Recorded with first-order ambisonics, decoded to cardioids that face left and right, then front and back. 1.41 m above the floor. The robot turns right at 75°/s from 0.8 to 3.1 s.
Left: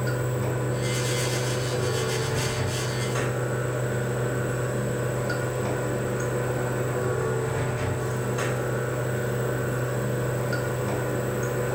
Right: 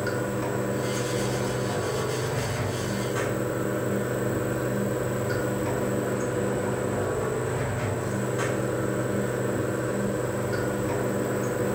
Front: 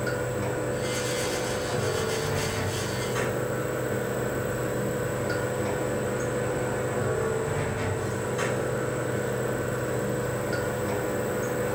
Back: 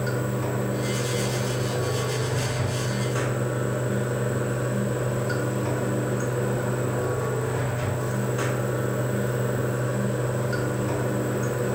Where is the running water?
85° right, 1.7 m; by 11.8 s 85° left, 1.7 m.